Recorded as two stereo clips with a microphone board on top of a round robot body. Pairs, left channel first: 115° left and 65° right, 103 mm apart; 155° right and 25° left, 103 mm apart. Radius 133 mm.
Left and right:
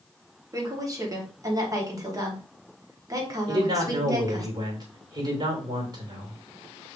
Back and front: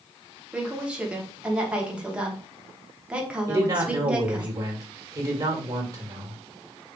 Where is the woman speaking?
50° right, 1.1 m.